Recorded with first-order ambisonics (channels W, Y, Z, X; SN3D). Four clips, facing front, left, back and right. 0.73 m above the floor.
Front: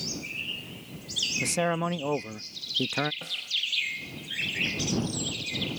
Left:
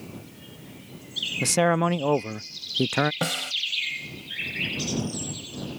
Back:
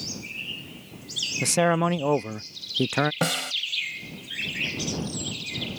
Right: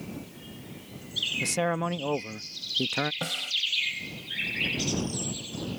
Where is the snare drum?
155° left.